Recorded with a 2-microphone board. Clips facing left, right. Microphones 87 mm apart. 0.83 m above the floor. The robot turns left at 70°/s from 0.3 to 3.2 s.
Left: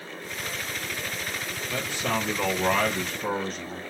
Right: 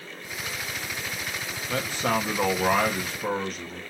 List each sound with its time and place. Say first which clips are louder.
1.7 s a man speaking: right 3 dB; 70° right, 1.2 m; by 3.8 s 175° right, 1.2 m